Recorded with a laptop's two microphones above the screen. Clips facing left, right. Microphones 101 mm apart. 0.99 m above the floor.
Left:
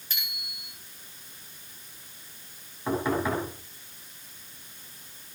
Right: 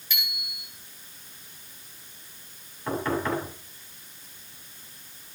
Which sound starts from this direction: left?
A bicycle bell, at 0.1 s.